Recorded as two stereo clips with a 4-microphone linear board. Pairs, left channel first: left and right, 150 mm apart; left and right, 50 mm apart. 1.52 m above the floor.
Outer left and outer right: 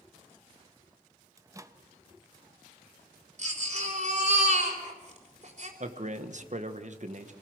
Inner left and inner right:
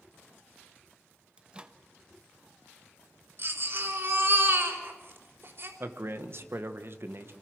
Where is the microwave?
20° right (ahead or behind), 0.9 m.